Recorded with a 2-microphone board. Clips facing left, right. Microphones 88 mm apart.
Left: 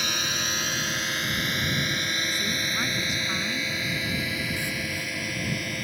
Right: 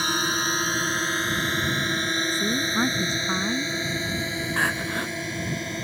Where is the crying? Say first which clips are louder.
Right 6 dB; 85° right.